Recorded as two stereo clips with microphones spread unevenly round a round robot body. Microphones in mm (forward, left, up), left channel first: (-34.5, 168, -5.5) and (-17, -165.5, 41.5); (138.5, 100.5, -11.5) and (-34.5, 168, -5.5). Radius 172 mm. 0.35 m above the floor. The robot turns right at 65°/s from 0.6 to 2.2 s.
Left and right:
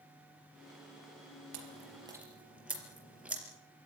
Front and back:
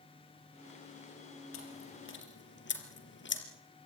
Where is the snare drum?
No snare drum in this recording.